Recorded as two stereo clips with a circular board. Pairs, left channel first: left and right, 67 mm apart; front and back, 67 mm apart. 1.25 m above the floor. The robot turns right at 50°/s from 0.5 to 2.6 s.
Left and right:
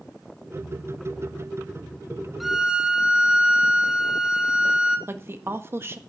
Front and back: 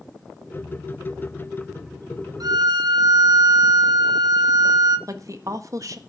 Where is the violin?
Straight behind, 1.4 m; by 5.0 s 170° right, 1.4 m.